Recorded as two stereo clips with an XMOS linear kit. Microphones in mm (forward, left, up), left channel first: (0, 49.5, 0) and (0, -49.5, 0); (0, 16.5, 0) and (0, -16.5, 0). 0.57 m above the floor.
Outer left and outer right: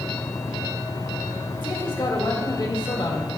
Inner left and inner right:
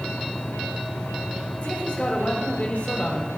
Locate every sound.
1.6 s a man speaking: 55° left (ahead or behind), 1.8 m